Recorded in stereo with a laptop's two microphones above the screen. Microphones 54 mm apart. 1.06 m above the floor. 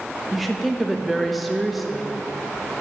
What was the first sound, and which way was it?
A woman speaking, centre (ahead or behind).